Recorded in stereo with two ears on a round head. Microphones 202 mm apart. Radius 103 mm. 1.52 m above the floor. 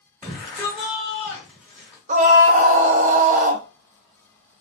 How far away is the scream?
About 0.9 m.